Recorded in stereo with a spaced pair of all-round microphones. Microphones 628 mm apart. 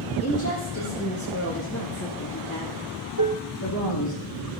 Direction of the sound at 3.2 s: 30° right (ahead or behind).